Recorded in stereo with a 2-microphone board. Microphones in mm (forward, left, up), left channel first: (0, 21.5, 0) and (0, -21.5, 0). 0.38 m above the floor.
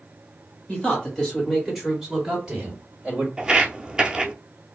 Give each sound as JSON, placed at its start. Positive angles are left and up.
{"t": 0.7, "sound": "a man speaking", "side_deg": 20, "distance_m": 1.7}
{"t": 3.4, "sound": "footsteps", "side_deg": -20, "distance_m": 0.5}